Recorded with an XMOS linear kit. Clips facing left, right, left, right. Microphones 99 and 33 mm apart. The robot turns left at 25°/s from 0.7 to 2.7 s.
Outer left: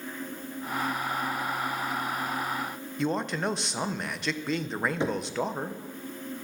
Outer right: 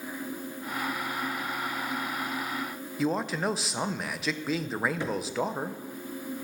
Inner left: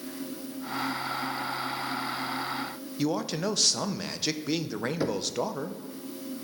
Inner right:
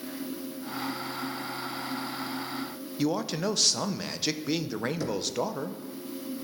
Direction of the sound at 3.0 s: Centre (ahead or behind).